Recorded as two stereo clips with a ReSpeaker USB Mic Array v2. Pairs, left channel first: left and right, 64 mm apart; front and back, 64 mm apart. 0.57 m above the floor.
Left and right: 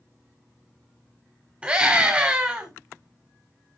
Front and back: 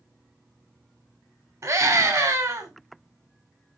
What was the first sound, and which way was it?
A scream, 150° right.